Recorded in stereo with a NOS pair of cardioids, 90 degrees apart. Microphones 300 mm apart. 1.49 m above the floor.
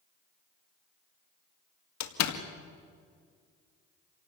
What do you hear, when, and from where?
2.0 s a door slam: 65° left, 2 m